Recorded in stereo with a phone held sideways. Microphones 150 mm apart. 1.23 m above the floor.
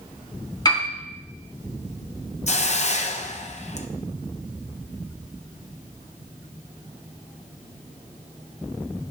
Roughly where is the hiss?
Left.